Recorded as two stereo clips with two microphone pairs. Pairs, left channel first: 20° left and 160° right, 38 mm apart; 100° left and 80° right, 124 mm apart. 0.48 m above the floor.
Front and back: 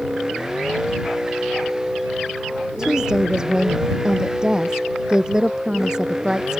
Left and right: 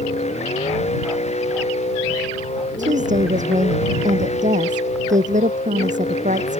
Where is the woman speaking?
90° right.